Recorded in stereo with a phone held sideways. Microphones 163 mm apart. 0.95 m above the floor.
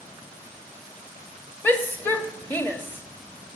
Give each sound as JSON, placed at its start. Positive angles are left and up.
{"t": 1.6, "sound": "a shout", "side_deg": 10, "distance_m": 1.4}